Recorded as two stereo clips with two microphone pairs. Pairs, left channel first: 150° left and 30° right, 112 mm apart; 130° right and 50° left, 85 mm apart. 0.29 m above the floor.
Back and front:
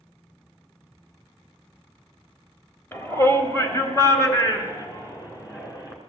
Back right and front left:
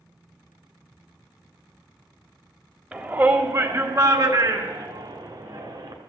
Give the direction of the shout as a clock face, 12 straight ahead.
8 o'clock.